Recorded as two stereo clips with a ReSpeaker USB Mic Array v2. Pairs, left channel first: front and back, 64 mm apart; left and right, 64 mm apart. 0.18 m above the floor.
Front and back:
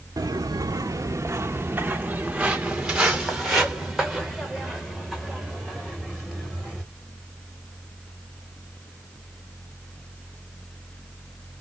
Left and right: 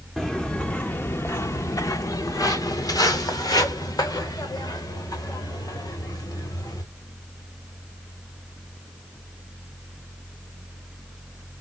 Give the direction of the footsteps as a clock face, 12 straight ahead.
6 o'clock.